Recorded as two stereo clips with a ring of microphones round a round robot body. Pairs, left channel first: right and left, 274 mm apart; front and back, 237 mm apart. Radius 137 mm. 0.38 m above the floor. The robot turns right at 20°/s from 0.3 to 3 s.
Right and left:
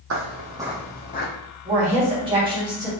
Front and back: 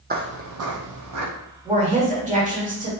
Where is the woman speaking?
135° left, 1.5 m; by 2.9 s 160° left, 1.5 m.